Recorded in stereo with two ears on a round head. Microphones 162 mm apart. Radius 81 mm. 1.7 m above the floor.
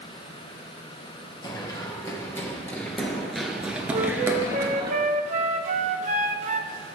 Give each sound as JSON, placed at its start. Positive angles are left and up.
{"t": 1.4, "sound": "running footsteps", "side_deg": 25, "distance_m": 2.5}
{"t": 3.9, "sound": "a flute", "side_deg": -40, "distance_m": 0.6}